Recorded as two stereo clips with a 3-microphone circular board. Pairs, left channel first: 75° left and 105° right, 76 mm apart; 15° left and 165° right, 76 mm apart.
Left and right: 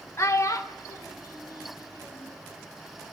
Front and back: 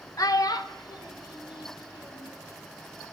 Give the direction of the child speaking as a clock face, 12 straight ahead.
11 o'clock.